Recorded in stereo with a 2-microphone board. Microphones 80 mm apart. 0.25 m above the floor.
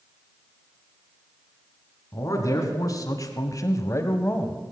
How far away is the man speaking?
About 2.5 m.